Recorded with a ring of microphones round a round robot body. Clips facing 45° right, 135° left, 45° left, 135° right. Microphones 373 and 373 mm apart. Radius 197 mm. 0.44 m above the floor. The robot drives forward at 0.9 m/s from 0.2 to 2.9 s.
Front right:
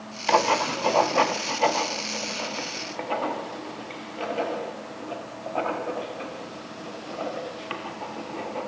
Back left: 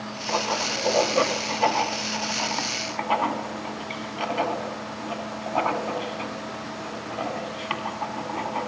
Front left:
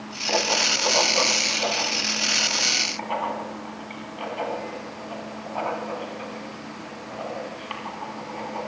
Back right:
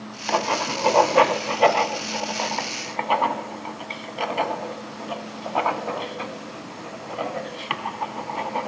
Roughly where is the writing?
Right.